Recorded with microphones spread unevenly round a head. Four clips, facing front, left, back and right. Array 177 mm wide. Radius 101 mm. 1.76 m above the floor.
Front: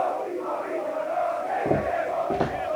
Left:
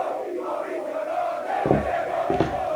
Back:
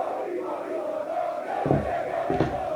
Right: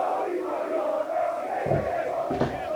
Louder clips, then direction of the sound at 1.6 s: Left 4 dB, even; 85° left.